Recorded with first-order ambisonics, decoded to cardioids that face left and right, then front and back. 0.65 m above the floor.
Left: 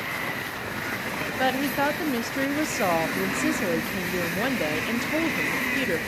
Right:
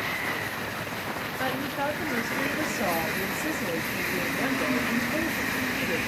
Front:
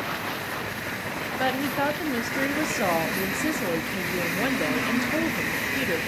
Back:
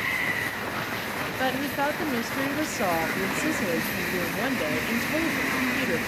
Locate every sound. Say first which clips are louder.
1.4 s a woman speaking: left 6 dB, front 2 dB; 85° left, 0.6 m